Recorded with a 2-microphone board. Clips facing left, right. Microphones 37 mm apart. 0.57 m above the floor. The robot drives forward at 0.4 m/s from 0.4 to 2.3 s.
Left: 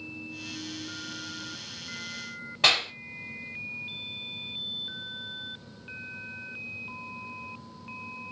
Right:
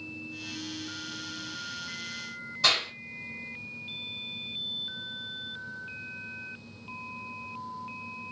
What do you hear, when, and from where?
2.6 s a clap: 50° left (ahead or behind), 2.5 m